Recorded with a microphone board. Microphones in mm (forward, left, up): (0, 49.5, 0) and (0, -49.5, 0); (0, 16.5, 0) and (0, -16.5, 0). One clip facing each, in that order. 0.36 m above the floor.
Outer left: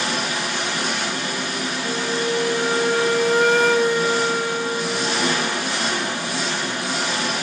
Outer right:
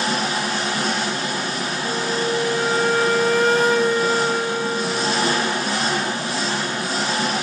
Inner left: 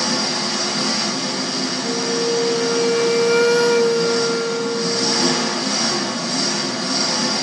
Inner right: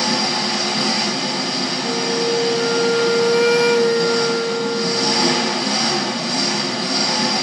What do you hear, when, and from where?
0.0 s an engine running: 35° right (ahead or behind), 1.7 m
1.8 s a flute: 10° left (ahead or behind), 1.0 m